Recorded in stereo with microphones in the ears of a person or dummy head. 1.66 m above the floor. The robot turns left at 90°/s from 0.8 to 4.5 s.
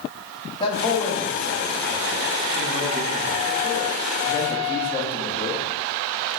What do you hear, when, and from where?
0.6 s a man speaking: 30° left, 0.8 m; by 5.7 s 55° left, 0.8 m